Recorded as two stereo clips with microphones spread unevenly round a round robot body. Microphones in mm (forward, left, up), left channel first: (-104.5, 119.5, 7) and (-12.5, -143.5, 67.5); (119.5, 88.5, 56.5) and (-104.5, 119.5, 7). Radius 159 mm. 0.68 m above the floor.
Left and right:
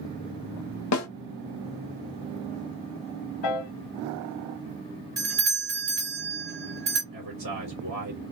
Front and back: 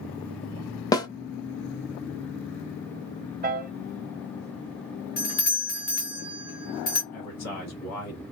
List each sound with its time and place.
0.9 s a snare drum: 60° left, 0.6 m
3.4 s a piano: 115° left, 0.9 m
5.2 s a doorbell: 40° right, 1.3 m
7.1 s a man speaking: 20° right, 1.4 m